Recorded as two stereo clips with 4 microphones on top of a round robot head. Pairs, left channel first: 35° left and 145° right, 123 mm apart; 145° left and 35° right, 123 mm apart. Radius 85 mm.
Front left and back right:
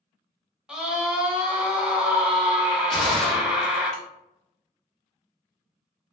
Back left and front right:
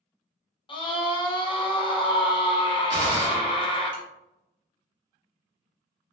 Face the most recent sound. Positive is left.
turn(degrees=-45)